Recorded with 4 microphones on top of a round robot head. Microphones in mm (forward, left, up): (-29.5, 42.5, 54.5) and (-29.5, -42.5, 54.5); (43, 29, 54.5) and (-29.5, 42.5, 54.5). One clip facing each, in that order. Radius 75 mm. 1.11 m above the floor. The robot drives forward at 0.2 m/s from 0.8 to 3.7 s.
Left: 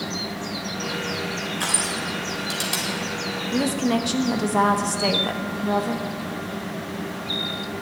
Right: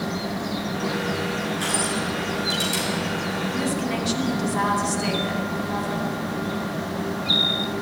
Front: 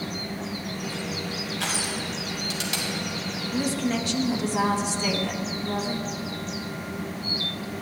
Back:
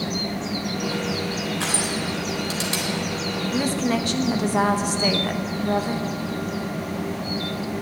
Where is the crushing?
115° left, 3.5 m.